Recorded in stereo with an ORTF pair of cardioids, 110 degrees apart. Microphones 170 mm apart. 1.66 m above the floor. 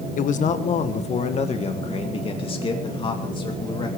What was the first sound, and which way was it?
A man speaking, 50° left.